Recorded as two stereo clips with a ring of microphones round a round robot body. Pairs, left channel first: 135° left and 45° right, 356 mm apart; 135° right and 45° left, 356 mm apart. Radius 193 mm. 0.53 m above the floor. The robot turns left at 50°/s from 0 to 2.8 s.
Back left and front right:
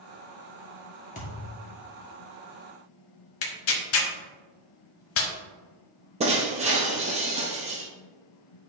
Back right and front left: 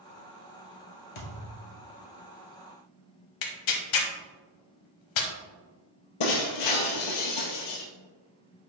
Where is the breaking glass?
115° right, 1.4 m.